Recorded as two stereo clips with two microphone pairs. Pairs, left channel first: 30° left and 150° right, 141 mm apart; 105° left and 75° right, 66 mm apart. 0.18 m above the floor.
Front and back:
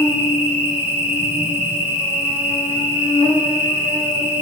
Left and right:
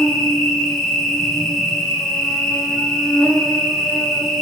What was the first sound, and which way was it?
An insect, 160° left.